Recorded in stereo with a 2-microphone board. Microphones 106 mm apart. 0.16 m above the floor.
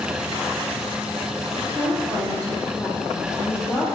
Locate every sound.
1.8 s a woman speaking: 20° left (ahead or behind), 3.5 m